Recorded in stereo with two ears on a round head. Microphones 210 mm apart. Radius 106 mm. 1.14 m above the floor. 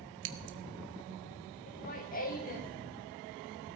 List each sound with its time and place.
0.2 s scissors: 55° right (ahead or behind), 1.1 m
1.7 s laughter: 40° left (ahead or behind), 1.2 m